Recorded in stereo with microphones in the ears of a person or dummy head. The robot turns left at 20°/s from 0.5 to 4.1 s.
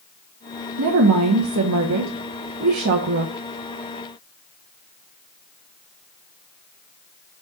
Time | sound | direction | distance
0.8 | a woman speaking | 80° right | 1.1 m